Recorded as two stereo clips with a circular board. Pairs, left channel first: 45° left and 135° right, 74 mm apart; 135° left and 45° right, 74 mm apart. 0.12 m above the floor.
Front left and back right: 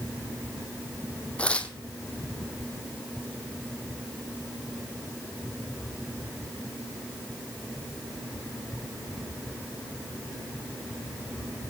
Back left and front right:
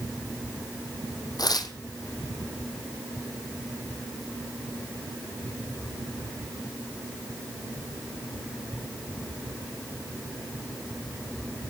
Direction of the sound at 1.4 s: 115° left.